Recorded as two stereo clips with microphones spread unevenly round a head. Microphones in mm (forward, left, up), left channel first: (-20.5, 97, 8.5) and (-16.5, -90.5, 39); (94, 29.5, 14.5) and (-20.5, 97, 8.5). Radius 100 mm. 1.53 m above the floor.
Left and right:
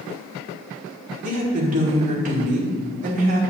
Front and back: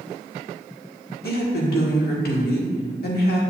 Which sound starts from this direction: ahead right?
A woman speaking, at 1.2 s.